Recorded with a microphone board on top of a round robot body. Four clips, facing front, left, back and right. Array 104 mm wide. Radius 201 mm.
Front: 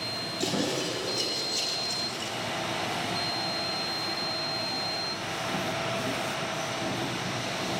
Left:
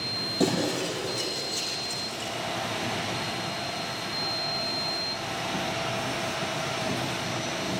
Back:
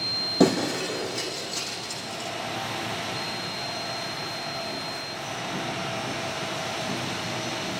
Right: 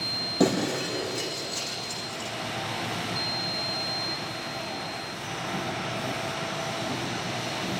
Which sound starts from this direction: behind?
Breaking glass, at 0.4 s.